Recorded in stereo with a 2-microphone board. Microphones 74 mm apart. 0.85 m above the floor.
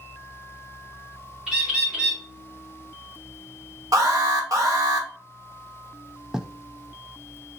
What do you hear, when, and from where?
1.5 s a bird: 10° right (ahead or behind), 2 m
3.9 s an alarm: 50° right (ahead or behind), 1.8 m
6.3 s writing: 10° right (ahead or behind), 0.5 m